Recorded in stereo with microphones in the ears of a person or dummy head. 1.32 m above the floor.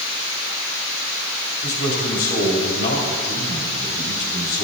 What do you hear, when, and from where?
1.6 s a man speaking: 55° left (ahead or behind), 3 m